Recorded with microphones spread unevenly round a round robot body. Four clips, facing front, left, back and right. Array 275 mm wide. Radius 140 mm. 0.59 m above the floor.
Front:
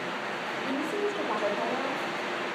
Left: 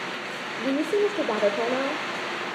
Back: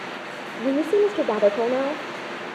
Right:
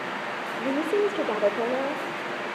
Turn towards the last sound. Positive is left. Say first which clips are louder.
# left 1 dB, back 12 dB
turn(degrees=180)